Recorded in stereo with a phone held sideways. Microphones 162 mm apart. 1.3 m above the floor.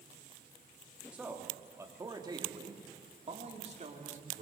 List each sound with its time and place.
1.1 s a man speaking: 5° right (ahead or behind), 2.5 m; by 4.4 s 50° right (ahead or behind), 3.5 m